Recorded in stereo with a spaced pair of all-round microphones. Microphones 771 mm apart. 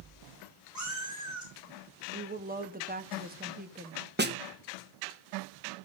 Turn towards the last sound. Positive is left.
turn(degrees=-15)  # may be behind; listen again after turning